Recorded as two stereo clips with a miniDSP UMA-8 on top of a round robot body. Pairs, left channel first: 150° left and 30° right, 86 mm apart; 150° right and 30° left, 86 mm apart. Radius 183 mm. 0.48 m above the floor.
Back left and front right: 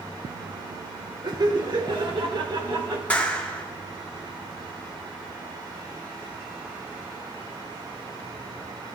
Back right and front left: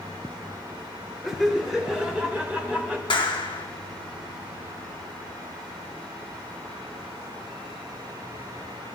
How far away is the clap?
About 1.6 m.